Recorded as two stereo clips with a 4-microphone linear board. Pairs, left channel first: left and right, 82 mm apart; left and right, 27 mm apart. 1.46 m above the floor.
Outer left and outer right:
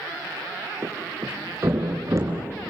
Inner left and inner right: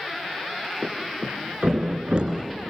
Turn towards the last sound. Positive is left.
turn(degrees=-40)  # may be behind; listen again after turning